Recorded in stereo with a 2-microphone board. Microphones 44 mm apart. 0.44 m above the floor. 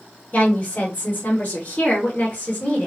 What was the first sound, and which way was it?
A woman speaking, 35° left (ahead or behind).